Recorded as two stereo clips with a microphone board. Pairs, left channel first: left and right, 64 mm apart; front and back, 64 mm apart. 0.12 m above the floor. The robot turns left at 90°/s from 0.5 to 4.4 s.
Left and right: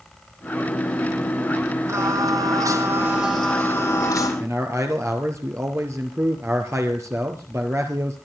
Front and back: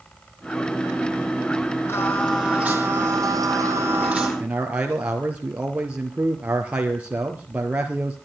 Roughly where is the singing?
Ahead right.